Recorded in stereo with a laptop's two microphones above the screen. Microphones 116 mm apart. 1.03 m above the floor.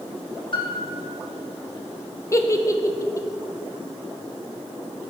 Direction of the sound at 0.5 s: 45° left (ahead or behind).